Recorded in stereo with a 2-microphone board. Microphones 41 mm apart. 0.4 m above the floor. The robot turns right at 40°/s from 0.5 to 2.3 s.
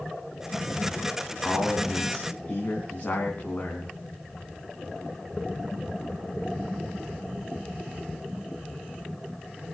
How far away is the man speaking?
About 4 m.